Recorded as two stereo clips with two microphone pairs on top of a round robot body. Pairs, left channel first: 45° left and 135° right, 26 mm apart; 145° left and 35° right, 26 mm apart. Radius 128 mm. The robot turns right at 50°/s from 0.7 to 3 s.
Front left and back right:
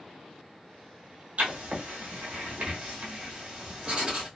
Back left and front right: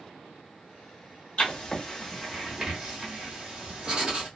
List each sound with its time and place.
1.4 s writing: 170° right, 0.9 m; by 4.3 s 90° right, 0.9 m